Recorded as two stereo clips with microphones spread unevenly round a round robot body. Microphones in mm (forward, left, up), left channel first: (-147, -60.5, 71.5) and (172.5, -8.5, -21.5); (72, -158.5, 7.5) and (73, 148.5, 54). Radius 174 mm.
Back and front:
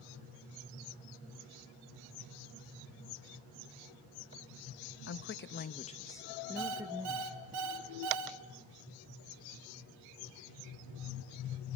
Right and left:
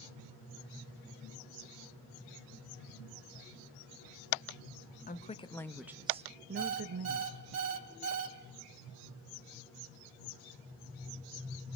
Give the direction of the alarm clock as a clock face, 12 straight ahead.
10 o'clock.